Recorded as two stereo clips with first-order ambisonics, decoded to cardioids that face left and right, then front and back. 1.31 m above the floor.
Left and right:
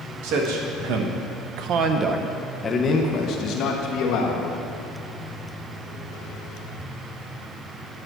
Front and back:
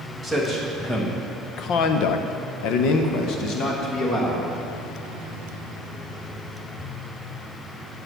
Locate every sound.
0.2 s a man speaking: 85° right, 1.4 m; by 4.5 s 55° left, 1.6 m